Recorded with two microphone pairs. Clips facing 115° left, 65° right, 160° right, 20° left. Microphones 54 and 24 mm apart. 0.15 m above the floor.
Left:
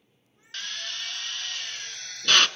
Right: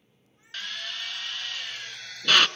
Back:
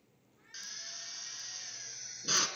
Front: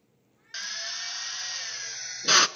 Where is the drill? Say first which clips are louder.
Even, front 10 dB; 20° left, 0.6 m.